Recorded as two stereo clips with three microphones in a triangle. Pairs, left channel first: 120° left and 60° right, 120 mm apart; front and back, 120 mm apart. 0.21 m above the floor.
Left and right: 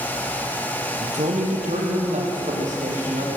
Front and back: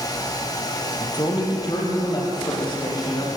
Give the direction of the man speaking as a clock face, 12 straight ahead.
2 o'clock.